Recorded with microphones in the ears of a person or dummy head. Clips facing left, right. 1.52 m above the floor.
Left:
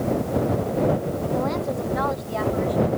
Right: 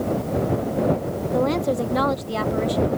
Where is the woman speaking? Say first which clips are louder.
Right 7 dB; 45° right (ahead or behind); by 2.9 s 55° right (ahead or behind).